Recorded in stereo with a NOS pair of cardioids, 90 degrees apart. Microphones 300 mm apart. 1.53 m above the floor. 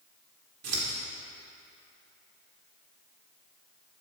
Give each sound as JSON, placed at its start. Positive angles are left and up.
{"t": 0.6, "sound": "scissors", "azimuth_deg": -60, "distance_m": 1.9}